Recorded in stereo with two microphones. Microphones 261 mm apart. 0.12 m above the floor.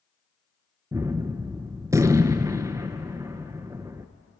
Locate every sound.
0.9 s a gunshot: 10° right (ahead or behind), 0.8 m